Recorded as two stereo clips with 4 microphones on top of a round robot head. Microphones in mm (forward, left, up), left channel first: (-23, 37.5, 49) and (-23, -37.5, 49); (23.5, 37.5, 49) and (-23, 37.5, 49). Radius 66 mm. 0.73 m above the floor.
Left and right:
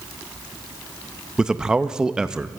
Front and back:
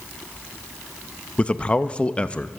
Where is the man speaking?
20° right, 0.5 m.